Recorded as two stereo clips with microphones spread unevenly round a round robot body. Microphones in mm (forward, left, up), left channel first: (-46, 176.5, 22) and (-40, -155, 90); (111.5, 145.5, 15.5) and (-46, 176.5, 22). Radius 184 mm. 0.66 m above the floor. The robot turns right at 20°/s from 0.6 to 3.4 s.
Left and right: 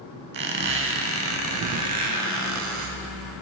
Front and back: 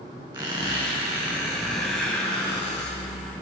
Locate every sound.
0.3 s a squeak: 125° right, 0.7 m; by 3.0 s 80° right, 0.7 m